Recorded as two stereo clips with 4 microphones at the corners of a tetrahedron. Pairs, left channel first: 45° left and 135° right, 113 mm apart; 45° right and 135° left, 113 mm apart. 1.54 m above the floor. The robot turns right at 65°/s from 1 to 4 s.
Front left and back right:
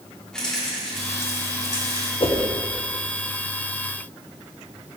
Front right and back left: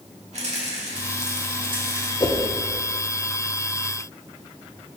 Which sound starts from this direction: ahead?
A whoosh, at 2.2 s.